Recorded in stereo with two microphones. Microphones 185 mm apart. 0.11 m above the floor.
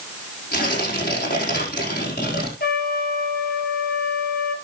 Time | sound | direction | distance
0.5 | tearing paper | 55° left (ahead or behind) | 4.5 m
2.6 | a trumpet | 55° left (ahead or behind) | 1.8 m